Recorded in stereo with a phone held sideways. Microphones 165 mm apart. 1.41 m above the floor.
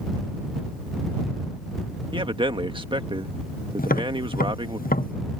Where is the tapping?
60° left (ahead or behind).